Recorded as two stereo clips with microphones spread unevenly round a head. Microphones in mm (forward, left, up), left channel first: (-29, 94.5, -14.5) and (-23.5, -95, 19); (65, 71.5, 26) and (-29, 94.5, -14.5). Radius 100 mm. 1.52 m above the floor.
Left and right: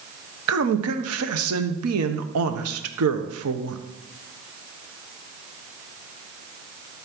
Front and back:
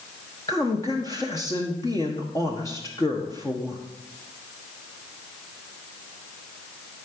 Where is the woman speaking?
90° right, 1.2 m.